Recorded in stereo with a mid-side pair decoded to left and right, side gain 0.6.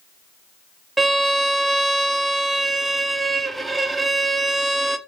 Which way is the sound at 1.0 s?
10° right.